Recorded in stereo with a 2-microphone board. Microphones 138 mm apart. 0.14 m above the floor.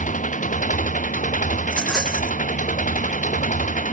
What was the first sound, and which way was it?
An engine running, 70° left (ahead or behind).